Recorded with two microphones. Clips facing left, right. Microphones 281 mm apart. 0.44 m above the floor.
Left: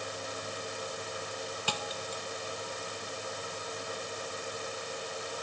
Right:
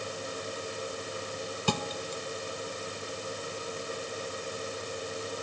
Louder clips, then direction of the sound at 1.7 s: Right 6 dB; 55° right (ahead or behind).